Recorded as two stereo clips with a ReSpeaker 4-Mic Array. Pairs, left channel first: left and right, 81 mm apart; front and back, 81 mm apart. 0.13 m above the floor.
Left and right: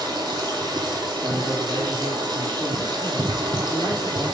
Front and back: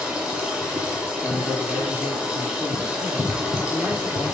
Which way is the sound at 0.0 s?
100° right.